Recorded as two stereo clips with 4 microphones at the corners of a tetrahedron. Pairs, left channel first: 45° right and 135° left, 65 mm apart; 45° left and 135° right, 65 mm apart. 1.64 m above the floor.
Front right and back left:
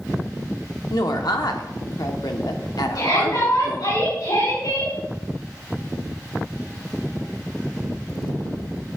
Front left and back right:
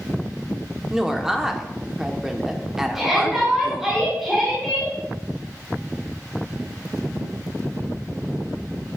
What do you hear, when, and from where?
0.9 s a woman speaking: 50° right, 1.2 m
3.0 s a shout: 50° right, 4 m